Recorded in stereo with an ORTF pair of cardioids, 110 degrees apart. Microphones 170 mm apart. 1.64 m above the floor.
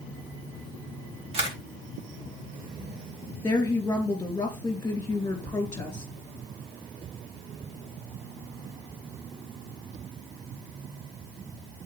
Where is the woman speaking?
15° left, 2.5 m.